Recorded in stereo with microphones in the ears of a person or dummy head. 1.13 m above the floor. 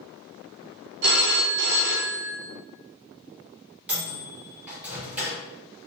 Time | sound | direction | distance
1.0 | a phone ringing | 65° right (ahead or behind) | 0.6 m
3.9 | a microwave | 10° right (ahead or behind) | 0.7 m